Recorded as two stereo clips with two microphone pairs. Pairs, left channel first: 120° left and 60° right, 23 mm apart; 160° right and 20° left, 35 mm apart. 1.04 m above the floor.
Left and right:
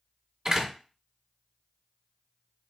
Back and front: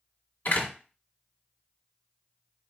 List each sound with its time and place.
0.5 s a door slam: 130° right, 1.3 m